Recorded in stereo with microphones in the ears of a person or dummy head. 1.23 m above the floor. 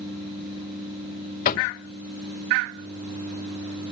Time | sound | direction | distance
1.4 | knocking | 45° left (ahead or behind) | 0.9 m